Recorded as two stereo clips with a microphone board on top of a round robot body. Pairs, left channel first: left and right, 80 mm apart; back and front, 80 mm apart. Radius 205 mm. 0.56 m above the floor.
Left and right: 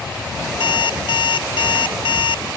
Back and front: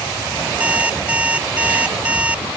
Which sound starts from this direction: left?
An alarm clock, at 0.6 s.